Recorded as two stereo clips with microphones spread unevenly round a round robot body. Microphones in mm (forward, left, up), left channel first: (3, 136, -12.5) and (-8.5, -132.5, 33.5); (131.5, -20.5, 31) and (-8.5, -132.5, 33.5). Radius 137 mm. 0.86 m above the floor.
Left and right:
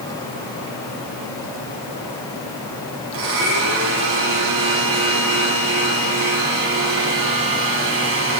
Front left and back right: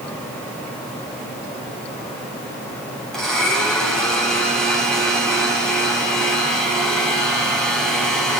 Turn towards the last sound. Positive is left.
turn(degrees=-50)